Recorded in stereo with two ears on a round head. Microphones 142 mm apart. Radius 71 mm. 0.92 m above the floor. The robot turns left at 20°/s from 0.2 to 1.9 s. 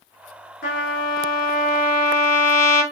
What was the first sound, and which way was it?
A trumpet, 70° left (ahead or behind).